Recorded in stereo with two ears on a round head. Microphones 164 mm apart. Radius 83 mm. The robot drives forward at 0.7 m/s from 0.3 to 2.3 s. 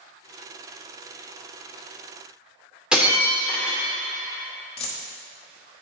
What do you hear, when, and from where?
2.9 s breaking glass: 5° right (ahead or behind), 2.0 m
4.8 s a dropped coin: 35° left (ahead or behind), 1.3 m